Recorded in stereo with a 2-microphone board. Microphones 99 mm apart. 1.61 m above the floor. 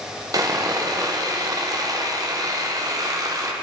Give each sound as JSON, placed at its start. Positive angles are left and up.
{"t": 0.3, "sound": "sawing", "side_deg": -35, "distance_m": 0.8}